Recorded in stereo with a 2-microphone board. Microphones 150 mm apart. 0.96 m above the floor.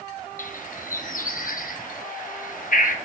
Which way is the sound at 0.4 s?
65° left (ahead or behind).